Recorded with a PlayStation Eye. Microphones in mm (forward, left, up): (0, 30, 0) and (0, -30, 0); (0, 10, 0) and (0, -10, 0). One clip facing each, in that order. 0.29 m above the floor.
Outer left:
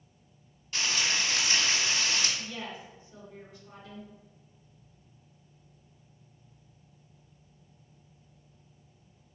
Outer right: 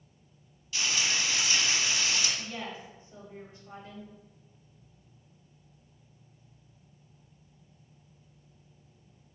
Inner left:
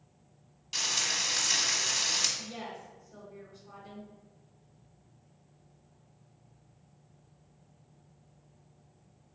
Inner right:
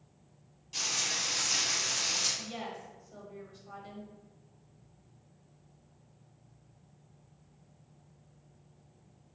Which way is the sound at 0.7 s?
45° left (ahead or behind).